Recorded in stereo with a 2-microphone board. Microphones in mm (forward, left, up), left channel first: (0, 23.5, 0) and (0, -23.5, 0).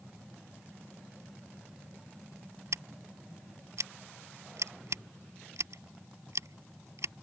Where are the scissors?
85° right.